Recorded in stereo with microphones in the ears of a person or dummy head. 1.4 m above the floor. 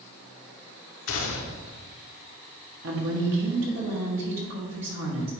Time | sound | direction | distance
1.1 | a gunshot | 70° left (ahead or behind) | 0.8 m
2.8 | a woman speaking | 65° right (ahead or behind) | 1.5 m